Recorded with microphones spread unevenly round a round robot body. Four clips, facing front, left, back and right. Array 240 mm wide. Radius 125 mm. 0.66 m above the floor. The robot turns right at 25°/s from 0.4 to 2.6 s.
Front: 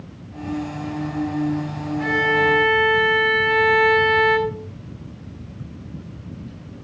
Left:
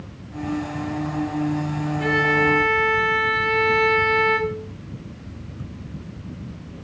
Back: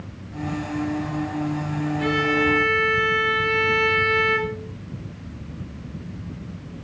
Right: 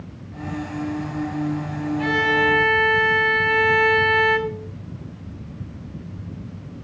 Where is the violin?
75° right, 3.5 m; by 4.6 s 60° right, 3.5 m.